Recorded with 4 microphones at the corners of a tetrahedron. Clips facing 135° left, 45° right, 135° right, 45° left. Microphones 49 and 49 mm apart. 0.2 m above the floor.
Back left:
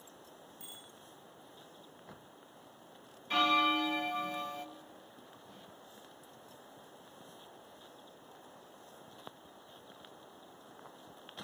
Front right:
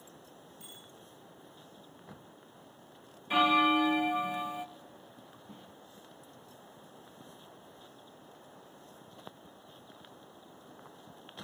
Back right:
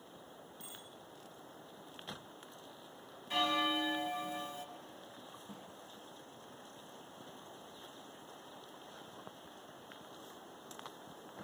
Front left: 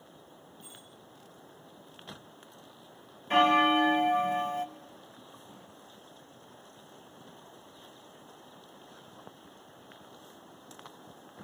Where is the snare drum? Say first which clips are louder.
Front right 5 dB, even; 105° right, 7 m.